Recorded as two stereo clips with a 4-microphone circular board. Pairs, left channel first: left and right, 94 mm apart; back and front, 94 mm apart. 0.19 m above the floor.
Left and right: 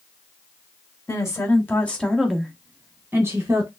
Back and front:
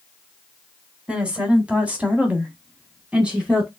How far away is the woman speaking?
About 1.2 m.